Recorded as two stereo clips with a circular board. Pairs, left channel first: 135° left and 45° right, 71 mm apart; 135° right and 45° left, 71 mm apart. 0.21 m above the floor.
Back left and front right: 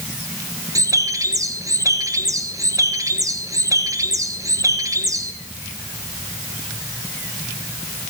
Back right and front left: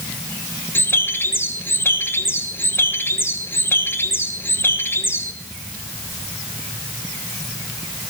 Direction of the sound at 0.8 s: 75° right.